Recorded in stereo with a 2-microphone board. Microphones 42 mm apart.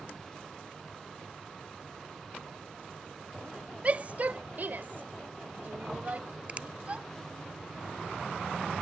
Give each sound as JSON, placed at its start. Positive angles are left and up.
{"t": 3.8, "sound": "a shout", "side_deg": -30}
{"t": 6.5, "sound": "a finger snap", "side_deg": -35}